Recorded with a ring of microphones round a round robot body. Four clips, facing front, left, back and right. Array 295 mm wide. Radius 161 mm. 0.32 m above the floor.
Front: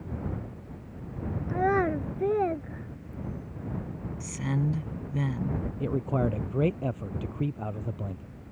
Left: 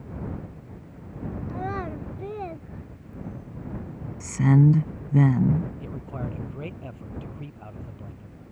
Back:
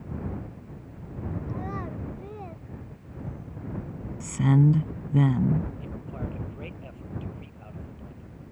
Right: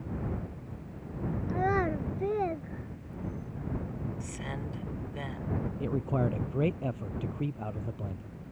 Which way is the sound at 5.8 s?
25° right.